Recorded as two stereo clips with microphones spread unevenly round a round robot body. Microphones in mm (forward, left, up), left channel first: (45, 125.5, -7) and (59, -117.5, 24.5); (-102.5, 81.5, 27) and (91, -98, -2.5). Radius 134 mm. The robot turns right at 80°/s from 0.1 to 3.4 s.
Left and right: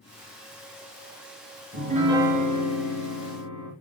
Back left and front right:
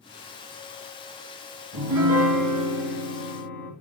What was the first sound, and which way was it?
A piano, 45° right.